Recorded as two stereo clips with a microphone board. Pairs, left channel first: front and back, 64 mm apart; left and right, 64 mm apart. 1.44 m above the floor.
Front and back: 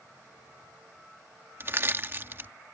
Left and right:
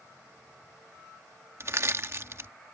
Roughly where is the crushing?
Behind right.